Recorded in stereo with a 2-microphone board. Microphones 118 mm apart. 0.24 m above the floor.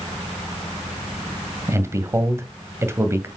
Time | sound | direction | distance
1.7 | a man speaking | 20° right (ahead or behind) | 1.1 m